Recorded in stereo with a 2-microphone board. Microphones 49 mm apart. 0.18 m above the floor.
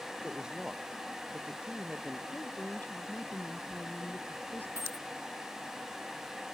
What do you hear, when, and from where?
0.2 s a woman speaking: 20° right (ahead or behind); by 2.2 s 15° right (ahead or behind)
2.3 s a woman speaking: 40° left (ahead or behind)
4.8 s a dropped coin: 60° right (ahead or behind)